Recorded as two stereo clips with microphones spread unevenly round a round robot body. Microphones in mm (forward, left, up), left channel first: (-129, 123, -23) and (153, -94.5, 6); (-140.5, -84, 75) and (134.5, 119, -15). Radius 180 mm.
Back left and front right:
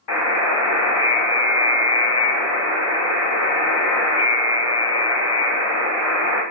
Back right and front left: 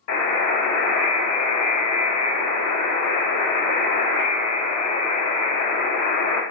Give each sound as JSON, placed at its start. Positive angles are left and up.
{"t": 0.1, "sound": "a buzzer", "azimuth_deg": 170, "distance_m": 1.1}